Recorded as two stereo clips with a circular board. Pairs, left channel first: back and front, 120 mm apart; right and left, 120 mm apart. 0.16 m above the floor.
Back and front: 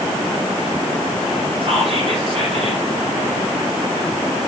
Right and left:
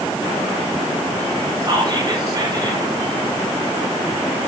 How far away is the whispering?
About 5 m.